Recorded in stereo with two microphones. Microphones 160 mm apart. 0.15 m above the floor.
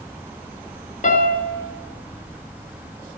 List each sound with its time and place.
1.0 s a piano: 50° left (ahead or behind), 0.8 m